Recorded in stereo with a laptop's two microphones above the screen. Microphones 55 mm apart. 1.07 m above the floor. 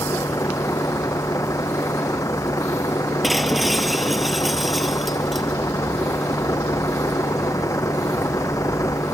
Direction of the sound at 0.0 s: 70° left (ahead or behind).